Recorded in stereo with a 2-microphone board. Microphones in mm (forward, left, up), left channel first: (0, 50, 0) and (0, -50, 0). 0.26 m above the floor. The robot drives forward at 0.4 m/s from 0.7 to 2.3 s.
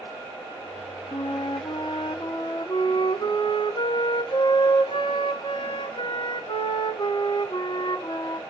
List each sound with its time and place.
1.1 s a flute: 60° left (ahead or behind), 0.6 m; by 8.4 s 55° left (ahead or behind), 0.7 m